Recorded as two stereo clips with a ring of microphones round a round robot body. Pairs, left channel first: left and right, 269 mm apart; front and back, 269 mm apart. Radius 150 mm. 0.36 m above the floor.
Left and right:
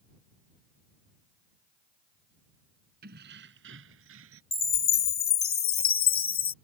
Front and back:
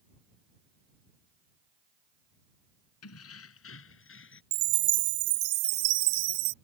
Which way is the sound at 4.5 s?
145° left.